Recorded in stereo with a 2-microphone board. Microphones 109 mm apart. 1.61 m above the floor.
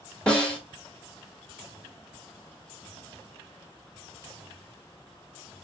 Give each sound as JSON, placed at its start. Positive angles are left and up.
{"t": 0.3, "sound": "a snare drum", "side_deg": 10, "distance_m": 1.7}